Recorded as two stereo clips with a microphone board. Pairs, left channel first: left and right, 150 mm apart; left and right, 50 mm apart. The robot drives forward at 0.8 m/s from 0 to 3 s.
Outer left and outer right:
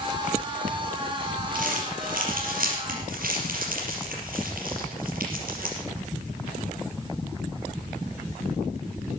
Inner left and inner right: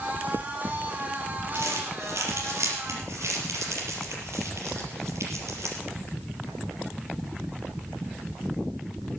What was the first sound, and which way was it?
Crumpling, 65° right (ahead or behind).